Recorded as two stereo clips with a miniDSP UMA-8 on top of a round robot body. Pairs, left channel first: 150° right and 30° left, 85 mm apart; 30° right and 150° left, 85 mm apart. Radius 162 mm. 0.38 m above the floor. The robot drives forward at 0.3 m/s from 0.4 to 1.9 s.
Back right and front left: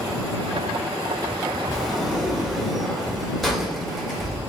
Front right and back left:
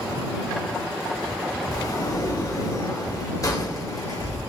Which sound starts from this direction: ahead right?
A sliding door, at 1.7 s.